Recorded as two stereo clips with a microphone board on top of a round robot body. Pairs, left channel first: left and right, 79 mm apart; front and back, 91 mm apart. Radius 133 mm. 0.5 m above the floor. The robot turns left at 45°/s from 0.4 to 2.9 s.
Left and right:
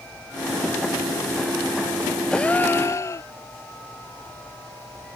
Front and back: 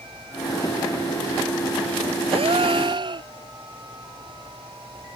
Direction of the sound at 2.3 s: 170° left.